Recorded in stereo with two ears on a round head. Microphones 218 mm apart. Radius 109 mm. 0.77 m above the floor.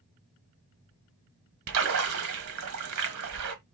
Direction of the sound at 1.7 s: 65° right (ahead or behind).